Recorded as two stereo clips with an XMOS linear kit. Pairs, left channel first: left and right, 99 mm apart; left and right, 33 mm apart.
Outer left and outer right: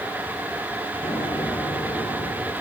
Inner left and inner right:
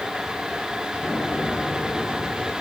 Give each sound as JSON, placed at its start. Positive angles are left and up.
{"t": 1.0, "sound": "an explosion", "side_deg": 60, "distance_m": 4.5}